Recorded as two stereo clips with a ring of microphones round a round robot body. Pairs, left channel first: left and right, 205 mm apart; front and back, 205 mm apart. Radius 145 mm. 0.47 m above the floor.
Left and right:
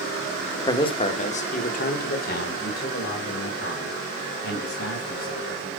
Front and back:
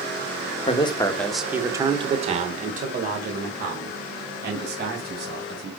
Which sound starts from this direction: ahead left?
A man speaking, at 0.7 s.